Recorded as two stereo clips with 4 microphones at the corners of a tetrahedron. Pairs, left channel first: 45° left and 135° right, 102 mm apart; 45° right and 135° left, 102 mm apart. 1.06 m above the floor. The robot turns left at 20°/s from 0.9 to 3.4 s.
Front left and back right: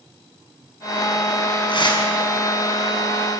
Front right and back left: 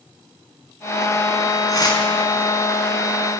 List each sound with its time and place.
1.7 s tearing paper: 10° left, 4.5 m; by 2.0 s straight ahead, 4.5 m